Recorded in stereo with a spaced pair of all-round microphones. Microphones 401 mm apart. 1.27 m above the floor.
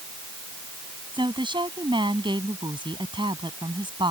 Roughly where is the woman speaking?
Centre.